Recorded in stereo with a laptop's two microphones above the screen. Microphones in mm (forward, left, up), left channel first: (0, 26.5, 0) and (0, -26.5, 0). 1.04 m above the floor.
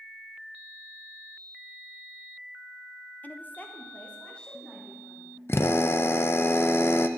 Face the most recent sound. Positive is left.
turn(degrees=55)  # may be behind; listen again after turning